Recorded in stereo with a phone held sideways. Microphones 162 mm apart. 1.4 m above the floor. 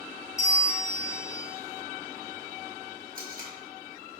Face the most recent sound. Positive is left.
turn(degrees=-60)  # may be behind; listen again after turning